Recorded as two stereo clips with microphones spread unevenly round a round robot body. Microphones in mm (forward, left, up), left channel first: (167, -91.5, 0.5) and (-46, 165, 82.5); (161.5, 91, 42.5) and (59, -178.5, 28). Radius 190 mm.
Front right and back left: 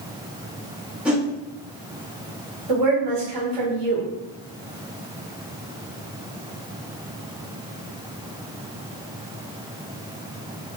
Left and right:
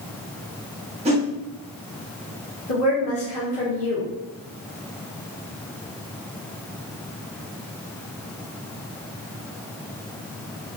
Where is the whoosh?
115° right, 0.9 m.